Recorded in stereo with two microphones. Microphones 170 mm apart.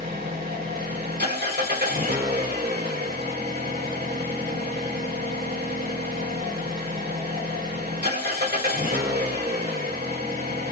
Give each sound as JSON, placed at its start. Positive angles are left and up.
{"t": 0.0, "sound": "an engine running", "side_deg": -75, "distance_m": 3.5}